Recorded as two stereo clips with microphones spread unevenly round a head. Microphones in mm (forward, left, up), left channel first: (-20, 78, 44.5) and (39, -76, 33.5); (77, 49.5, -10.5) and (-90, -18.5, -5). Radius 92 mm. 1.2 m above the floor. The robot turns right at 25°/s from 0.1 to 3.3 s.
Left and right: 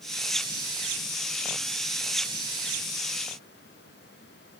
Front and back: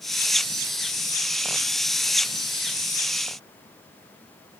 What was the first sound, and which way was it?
Only background noise.